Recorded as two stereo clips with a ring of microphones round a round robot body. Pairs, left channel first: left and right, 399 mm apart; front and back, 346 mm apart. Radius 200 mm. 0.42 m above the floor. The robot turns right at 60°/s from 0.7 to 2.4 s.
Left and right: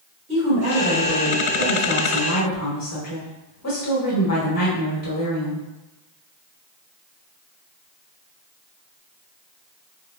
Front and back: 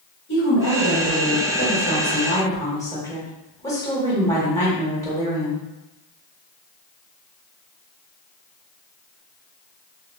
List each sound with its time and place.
0.3 s a woman speaking: 25° right, 1.1 m; by 5.7 s 75° left, 1.1 m